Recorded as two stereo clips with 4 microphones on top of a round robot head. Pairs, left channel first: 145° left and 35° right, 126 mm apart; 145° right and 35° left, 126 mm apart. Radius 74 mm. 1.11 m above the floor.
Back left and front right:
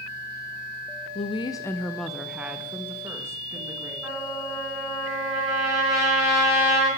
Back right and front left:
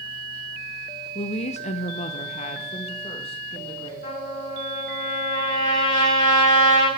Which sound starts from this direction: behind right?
A trumpet, at 4.0 s.